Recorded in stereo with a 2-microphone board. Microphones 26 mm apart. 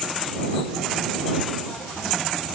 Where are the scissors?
No scissors in this recording.